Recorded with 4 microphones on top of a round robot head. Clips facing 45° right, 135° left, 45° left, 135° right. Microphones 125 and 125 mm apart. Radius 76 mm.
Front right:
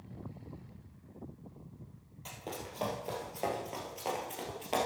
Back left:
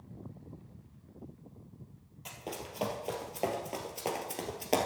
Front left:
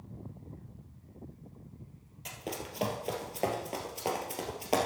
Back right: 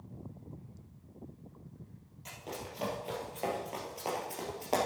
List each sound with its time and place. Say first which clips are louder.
2.2 s running footsteps: back left 1 dB, front left 3 dB; 50° left, 1.9 m; by 4.9 s 120° left, 1.7 m